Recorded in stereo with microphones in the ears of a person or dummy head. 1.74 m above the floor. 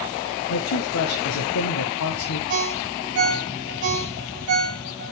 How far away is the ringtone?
About 6.5 m.